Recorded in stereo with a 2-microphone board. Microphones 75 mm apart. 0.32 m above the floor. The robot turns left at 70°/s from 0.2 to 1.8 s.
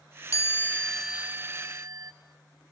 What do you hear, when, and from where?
0.3 s a chime: 45° left, 0.7 m; by 2.1 s 60° right, 0.7 m